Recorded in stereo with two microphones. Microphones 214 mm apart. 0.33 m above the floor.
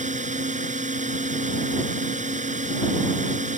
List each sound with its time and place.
0.0 s a drone: 35° right (ahead or behind)